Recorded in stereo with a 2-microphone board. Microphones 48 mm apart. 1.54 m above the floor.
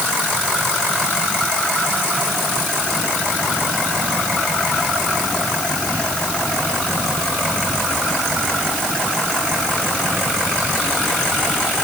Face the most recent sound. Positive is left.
No sound to turn to.